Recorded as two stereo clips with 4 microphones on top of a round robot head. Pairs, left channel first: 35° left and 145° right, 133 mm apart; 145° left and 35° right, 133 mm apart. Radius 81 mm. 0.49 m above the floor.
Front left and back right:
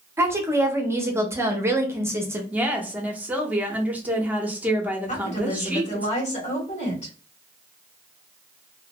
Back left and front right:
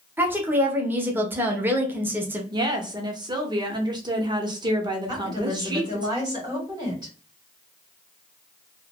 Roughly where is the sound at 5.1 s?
Ahead.